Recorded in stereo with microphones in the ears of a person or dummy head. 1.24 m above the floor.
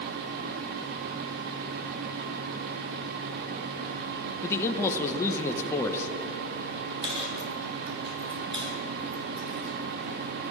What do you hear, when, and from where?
4.4 s a man speaking: 15° left (ahead or behind), 1.1 m
7.0 s a dropped coin: 30° right (ahead or behind), 3.5 m